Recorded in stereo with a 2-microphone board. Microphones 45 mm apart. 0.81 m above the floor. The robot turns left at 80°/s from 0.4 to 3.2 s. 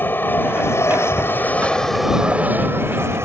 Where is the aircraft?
130° left; by 3.2 s 95° right.